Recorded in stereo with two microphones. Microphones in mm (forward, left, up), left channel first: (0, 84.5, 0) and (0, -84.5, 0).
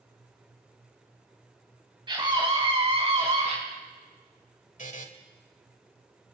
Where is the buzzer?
50° left (ahead or behind), 1.2 m.